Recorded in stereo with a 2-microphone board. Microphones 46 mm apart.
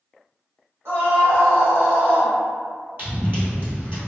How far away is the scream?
About 1.2 m.